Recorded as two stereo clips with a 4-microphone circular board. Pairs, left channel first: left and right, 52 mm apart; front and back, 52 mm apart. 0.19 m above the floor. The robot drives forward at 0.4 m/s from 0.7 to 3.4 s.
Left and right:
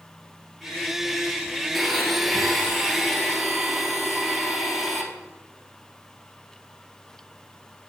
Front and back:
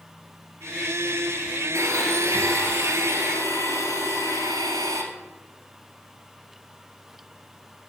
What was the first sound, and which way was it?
A blender, straight behind.